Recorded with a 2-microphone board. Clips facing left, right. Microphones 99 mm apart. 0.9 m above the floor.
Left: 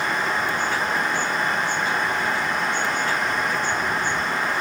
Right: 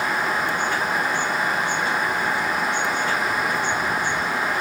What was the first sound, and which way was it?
Only background noise.